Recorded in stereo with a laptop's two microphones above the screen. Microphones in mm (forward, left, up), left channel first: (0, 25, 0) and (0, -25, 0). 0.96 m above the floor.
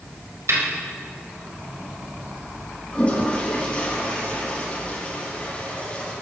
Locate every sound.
0.5 s a snare drum: 70° right (ahead or behind), 3 m
2.9 s a toilet flushing: 25° left (ahead or behind), 5.5 m